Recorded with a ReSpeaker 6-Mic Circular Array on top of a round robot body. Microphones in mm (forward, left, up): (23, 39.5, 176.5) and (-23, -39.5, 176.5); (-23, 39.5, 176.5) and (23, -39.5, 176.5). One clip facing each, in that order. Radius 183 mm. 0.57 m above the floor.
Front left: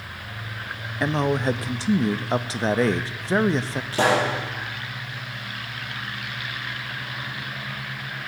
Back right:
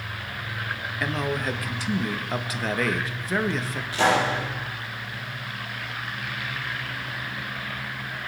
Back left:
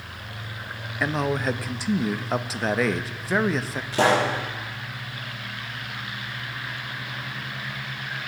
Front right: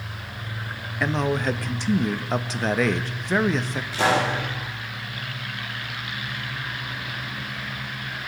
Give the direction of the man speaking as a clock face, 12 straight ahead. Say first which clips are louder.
Front left 6 dB, front right 1 dB; 11 o'clock.